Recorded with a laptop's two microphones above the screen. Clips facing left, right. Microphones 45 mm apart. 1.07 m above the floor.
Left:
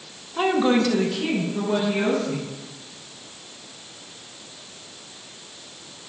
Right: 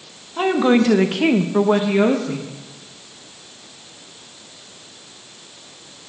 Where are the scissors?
I don't hear scissors.